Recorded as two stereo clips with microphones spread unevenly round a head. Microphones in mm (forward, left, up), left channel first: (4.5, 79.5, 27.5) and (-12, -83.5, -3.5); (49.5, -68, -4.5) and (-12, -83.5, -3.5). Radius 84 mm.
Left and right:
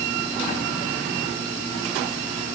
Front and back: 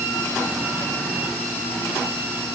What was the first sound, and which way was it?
Only background noise.